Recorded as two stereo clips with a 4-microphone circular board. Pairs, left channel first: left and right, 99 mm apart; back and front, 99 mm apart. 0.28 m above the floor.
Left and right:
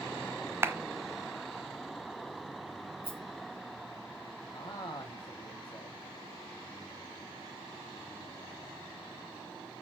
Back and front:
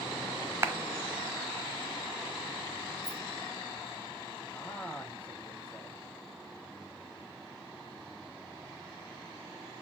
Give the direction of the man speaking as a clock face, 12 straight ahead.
8 o'clock.